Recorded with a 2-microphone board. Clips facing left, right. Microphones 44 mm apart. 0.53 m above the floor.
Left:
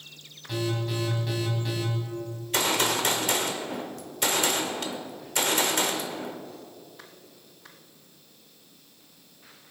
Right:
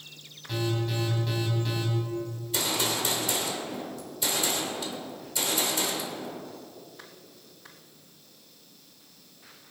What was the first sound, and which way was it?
An alarm, 5° left (ahead or behind).